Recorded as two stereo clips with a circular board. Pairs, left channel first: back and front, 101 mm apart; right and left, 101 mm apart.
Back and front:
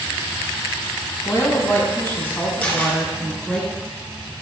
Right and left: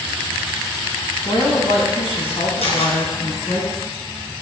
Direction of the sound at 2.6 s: 100° right.